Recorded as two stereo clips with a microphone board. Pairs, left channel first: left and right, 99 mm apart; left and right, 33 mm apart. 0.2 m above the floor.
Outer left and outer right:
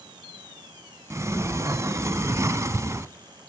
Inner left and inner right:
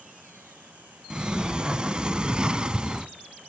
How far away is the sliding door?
About 0.7 m.